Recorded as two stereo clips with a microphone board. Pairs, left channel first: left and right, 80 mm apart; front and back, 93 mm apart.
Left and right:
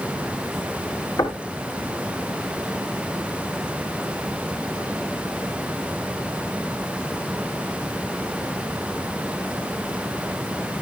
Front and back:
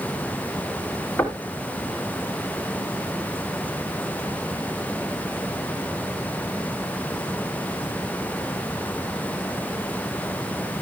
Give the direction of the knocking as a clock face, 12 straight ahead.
10 o'clock.